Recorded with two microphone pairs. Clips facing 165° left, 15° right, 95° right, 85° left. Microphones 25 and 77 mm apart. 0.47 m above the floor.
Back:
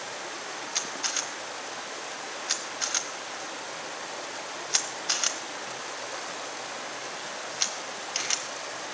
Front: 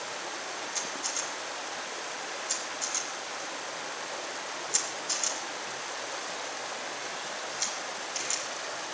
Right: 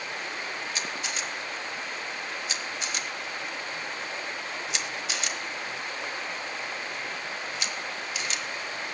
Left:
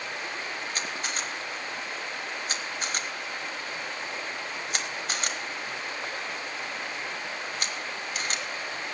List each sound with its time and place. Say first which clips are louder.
0.8 s a camera shutter: back 5 dB, left 1 dB; 130° left, 1.0 m